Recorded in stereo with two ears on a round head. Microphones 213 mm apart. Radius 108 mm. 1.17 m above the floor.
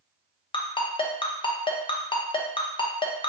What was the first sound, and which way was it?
A ringtone, 20° left (ahead or behind).